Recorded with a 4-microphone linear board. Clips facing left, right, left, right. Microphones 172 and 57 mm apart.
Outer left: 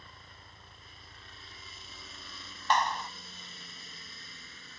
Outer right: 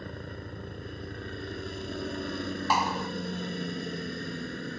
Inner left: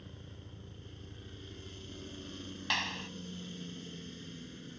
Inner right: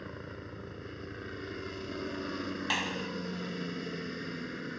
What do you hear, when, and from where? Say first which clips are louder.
0.0 s a helicopter: outer right 17 dB, inner right 10 dB; 65° right (ahead or behind)
2.7 s a clap: even, even; 10° right (ahead or behind)